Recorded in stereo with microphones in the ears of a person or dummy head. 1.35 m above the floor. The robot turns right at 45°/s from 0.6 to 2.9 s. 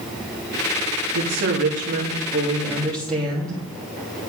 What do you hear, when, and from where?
1.1 s a woman speaking: 75° right, 3 m; by 3.6 s 5° left, 3 m